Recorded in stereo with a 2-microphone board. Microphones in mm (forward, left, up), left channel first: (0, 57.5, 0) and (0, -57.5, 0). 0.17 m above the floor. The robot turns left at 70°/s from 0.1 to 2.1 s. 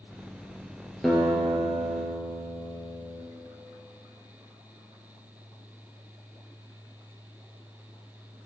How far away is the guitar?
About 1.5 m.